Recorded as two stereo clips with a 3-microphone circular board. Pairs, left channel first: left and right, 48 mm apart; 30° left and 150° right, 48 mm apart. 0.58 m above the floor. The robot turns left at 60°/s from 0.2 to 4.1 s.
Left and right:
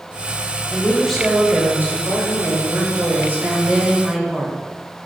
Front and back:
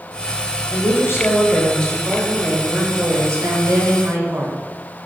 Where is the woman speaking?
25° left, 2.5 m; by 4.6 s straight behind, 2.5 m.